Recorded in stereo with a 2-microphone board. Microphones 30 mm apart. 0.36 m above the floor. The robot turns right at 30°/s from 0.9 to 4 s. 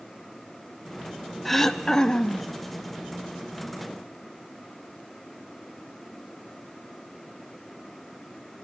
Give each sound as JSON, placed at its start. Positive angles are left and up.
{"t": 1.4, "sound": "throat clearing", "azimuth_deg": 5, "distance_m": 1.1}